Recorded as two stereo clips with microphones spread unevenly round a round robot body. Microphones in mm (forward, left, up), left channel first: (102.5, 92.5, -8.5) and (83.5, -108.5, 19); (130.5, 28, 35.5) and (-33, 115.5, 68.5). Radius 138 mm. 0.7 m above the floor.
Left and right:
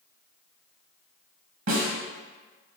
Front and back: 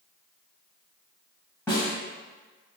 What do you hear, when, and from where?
1.7 s a snare drum: 115° right, 1.3 m